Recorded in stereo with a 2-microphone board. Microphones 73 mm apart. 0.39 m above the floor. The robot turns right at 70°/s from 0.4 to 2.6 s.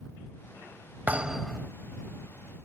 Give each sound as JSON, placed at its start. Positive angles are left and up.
{"t": 1.1, "sound": "a thud", "azimuth_deg": -25}